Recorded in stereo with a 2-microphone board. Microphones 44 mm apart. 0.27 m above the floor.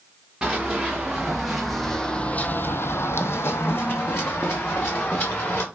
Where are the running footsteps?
15° right (ahead or behind), 1.7 m; by 5.7 s 45° left (ahead or behind), 2.5 m.